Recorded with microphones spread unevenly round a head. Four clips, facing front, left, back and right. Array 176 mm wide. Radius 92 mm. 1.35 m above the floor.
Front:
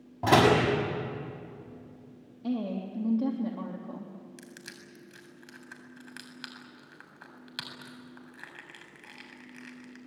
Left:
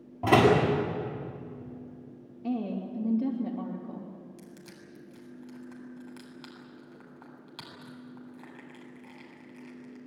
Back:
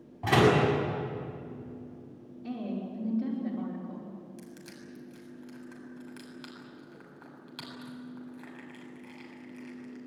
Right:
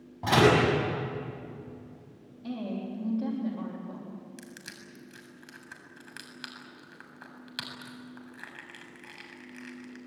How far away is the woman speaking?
About 3.5 m.